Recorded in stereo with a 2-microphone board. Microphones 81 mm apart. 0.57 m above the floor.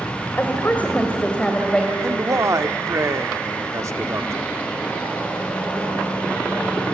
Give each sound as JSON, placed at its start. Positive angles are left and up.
{"t": 0.4, "sound": "a woman speaking", "side_deg": 25, "distance_m": 2.0}
{"t": 2.0, "sound": "a man speaking", "side_deg": -40, "distance_m": 1.1}